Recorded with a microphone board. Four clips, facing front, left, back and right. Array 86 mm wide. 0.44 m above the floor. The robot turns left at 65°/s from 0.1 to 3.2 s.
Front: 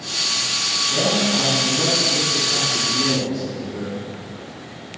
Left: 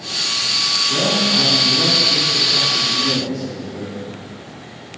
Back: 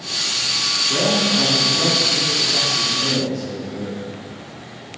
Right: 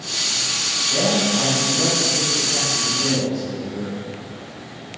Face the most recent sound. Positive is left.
turn(degrees=-30)